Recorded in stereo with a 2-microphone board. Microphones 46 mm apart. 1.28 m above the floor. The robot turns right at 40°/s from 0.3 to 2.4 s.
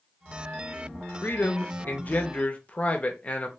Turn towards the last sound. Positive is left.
turn(degrees=140)